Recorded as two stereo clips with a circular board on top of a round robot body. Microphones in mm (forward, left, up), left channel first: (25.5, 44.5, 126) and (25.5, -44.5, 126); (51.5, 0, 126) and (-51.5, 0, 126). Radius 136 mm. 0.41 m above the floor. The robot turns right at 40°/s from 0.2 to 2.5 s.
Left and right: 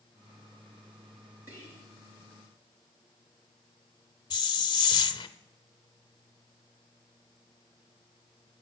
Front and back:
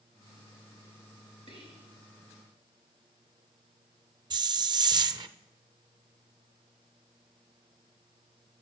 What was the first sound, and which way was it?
Whispering, 160° right.